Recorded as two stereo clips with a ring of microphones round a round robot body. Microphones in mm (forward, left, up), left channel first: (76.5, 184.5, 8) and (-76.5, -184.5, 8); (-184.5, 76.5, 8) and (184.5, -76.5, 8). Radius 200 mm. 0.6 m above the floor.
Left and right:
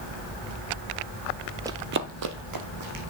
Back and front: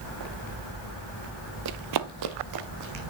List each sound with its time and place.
1.6 s running footsteps: 35° right, 0.7 m; by 3.0 s 70° right, 2 m